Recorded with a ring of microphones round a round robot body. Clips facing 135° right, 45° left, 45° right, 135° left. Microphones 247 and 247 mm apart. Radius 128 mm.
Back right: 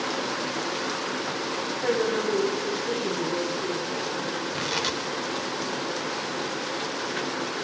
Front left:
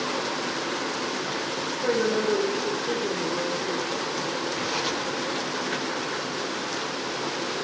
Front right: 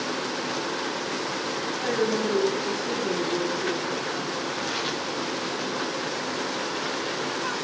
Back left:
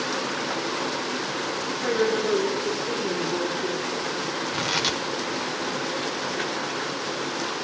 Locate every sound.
1.8 s a woman speaking: 140° right, 5 m
4.5 s tearing paper: 165° left, 1.3 m